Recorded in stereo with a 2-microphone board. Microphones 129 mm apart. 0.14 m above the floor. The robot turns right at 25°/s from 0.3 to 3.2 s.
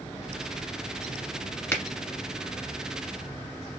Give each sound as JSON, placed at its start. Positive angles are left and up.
{"t": 1.7, "sound": "a finger snap", "side_deg": 20, "distance_m": 1.2}